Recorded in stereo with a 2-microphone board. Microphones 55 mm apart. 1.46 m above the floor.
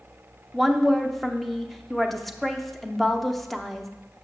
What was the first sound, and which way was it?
A woman speaking, 5° left (ahead or behind).